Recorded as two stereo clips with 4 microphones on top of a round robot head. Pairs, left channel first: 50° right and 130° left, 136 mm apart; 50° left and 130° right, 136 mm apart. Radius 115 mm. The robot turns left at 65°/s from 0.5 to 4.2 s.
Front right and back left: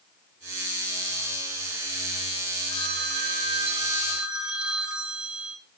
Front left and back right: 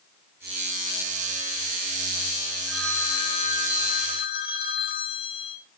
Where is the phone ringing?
145° left, 3 m; by 5.6 s 45° left, 3 m.